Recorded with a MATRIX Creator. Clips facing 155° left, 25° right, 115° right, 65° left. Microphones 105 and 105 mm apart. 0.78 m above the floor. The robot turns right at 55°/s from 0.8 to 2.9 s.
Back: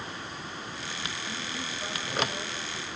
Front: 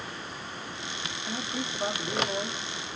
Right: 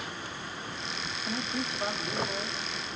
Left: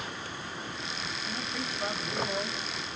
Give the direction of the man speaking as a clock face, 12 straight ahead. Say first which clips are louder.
Front 3 dB, right 5 dB; 3 o'clock.